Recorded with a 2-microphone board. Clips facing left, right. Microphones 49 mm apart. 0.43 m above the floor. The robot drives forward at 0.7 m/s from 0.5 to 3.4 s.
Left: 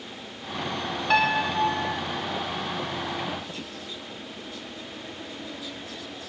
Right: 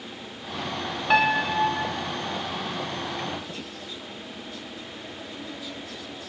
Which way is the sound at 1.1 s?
5° right (ahead or behind).